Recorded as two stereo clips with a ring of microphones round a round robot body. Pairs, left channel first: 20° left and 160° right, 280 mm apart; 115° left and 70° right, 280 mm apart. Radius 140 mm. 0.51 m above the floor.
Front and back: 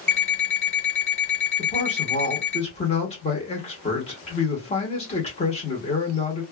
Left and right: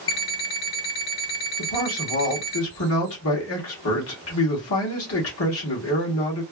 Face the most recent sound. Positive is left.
turn(degrees=85)